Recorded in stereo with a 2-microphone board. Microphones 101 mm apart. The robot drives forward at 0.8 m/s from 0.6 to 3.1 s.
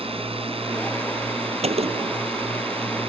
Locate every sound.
0.0 s a drone: 65° right (ahead or behind)
1.6 s a gunshot: 85° right; by 2.2 s 80° right